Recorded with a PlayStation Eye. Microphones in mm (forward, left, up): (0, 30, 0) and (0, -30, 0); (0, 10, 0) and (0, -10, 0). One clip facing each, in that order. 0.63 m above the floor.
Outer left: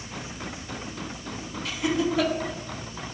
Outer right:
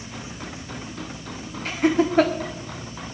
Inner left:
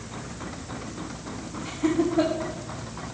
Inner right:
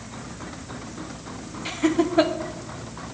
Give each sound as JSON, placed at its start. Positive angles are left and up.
{"t": 1.6, "sound": "laughter", "side_deg": -45, "distance_m": 1.7}